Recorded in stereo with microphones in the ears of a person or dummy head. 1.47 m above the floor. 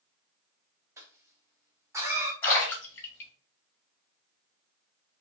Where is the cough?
15° right (ahead or behind), 0.8 m.